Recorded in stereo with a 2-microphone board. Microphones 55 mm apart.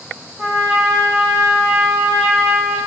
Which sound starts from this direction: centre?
A trumpet, at 0.4 s.